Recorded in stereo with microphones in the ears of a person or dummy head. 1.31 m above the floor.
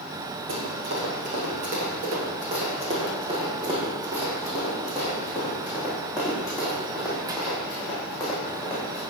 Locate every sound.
0.5 s running footsteps: 55° right (ahead or behind), 2 m; by 9.0 s centre (ahead or behind), 4.5 m